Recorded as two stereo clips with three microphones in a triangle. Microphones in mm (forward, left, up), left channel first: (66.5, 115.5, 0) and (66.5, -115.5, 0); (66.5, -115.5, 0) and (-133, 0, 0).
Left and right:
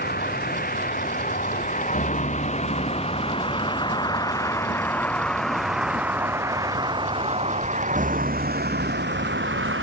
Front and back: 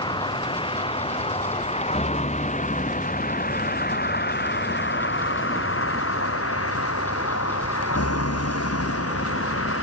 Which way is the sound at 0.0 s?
40° left.